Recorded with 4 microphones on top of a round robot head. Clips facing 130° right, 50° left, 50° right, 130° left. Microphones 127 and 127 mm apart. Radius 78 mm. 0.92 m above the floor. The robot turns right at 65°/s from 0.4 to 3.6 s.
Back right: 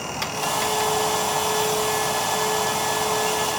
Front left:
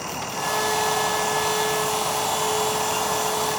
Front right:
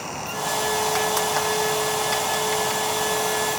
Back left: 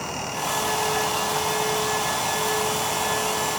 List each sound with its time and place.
Only background noise.